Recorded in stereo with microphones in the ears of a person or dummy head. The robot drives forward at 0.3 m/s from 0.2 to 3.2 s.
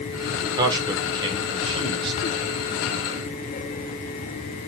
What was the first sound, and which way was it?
A man speaking, 20° right (ahead or behind).